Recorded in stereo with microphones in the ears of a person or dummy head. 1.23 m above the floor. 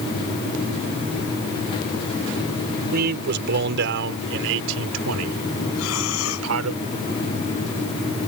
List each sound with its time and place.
2.9 s a man speaking: 50° right (ahead or behind); by 6.8 s 85° right
5.8 s breathing: 80° left